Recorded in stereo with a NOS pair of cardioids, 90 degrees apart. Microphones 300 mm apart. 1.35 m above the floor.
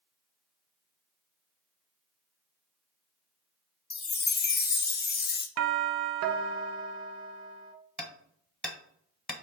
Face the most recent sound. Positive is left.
turn(degrees=0)